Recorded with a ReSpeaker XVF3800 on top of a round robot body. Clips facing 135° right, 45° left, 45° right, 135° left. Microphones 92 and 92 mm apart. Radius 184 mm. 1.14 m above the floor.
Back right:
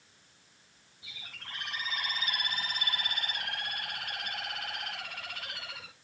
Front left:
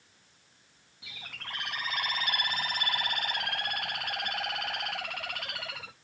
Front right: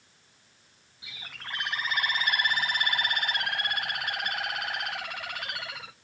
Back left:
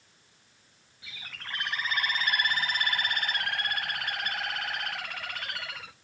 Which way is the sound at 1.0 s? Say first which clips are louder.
Front left 5 dB, front right 1 dB; 30° left.